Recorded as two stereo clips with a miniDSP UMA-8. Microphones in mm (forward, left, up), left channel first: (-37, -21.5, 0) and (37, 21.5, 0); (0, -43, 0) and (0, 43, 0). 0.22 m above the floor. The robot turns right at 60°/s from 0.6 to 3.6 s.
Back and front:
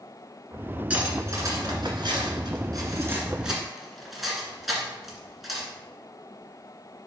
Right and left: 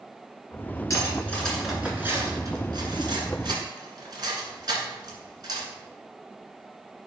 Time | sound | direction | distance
0.9 | cutlery clinking | 45° right | 1.9 m